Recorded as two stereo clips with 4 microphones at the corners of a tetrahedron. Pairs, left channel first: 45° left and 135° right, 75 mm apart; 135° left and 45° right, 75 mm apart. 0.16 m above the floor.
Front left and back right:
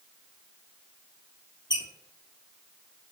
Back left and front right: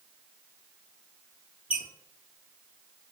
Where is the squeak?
25° left, 0.9 m.